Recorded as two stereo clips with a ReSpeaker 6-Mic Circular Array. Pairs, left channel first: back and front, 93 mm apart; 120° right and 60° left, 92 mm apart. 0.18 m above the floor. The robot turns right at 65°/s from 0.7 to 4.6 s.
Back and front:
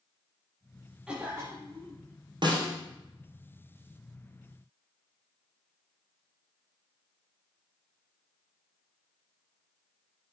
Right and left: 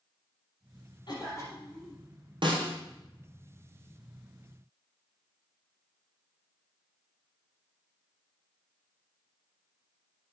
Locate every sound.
1.1 s a cough: 85° right, 5.5 m; by 2.0 s 25° right, 5.5 m
2.4 s a snare drum: 30° left, 2.5 m; by 2.8 s 55° left, 2.5 m